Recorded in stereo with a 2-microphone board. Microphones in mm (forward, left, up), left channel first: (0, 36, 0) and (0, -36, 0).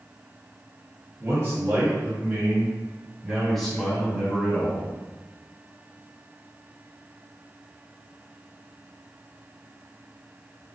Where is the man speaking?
40° right (ahead or behind), 1.9 m; by 4.9 s 25° left (ahead or behind), 1.6 m.